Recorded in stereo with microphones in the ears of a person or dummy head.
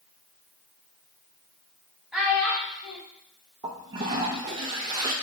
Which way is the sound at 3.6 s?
25° right (ahead or behind).